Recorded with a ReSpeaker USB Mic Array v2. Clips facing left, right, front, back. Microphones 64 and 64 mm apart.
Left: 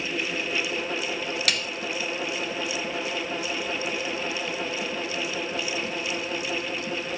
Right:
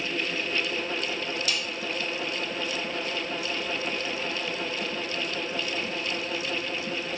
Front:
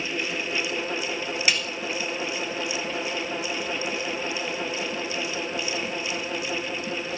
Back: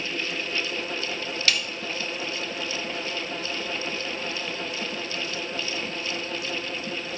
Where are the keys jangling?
I don't hear keys jangling.